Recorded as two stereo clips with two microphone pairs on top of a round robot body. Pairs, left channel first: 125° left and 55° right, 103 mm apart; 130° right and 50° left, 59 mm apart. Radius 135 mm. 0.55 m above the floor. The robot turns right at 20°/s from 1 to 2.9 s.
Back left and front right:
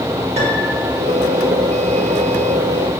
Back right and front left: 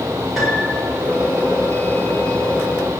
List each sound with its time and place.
0.4 s a piano: 40° right, 5.5 m